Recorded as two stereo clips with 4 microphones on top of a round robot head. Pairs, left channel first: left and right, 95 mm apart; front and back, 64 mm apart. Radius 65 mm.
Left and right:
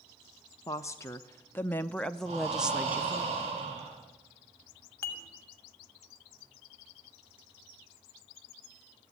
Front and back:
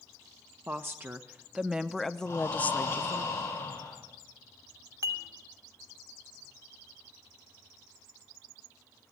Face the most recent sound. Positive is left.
turn(degrees=150)